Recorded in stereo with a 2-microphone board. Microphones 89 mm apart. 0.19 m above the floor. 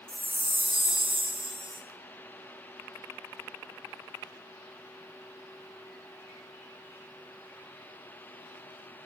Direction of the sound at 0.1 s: 80° right.